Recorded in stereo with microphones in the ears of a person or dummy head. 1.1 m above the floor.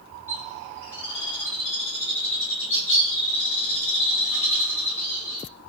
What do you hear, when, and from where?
0.3 s a bird: 5° left (ahead or behind), 2.5 m